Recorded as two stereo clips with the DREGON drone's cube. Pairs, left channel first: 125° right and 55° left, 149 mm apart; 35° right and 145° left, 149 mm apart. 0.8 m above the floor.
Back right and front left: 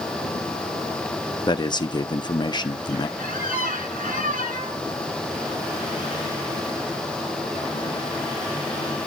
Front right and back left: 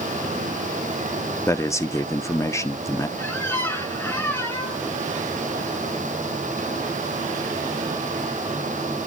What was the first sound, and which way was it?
A man speaking, 90° right.